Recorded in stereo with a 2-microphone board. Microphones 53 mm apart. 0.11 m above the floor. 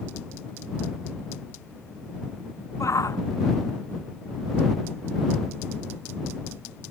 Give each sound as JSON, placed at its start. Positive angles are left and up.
{"t": 2.8, "sound": "a shout", "side_deg": 75}